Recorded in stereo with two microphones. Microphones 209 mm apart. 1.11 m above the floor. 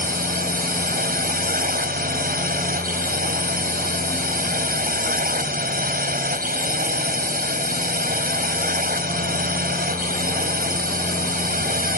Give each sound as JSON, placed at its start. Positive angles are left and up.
{"t": 0.0, "sound": "a drone", "side_deg": -45}